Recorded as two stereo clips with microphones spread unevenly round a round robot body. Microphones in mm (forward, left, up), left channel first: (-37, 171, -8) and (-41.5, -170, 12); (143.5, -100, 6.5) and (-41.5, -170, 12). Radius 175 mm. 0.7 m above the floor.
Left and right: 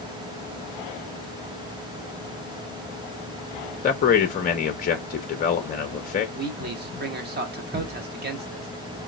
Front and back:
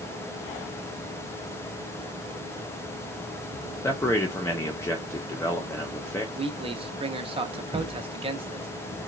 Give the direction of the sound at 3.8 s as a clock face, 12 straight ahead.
9 o'clock.